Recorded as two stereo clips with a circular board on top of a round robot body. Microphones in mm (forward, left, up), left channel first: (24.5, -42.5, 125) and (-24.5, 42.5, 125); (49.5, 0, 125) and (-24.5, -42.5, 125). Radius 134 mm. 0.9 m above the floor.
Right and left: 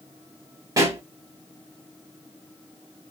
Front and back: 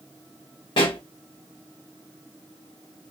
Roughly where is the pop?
Ahead left.